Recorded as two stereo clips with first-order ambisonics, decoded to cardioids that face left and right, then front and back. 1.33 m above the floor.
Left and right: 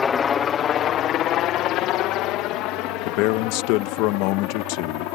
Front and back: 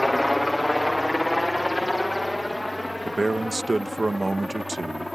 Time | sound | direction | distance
0.0 | a helicopter | 90° left | ?
3.0 | a man speaking | 100° left | ?